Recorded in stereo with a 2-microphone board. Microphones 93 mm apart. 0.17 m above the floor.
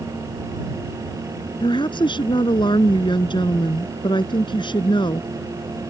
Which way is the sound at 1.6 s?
55° left (ahead or behind).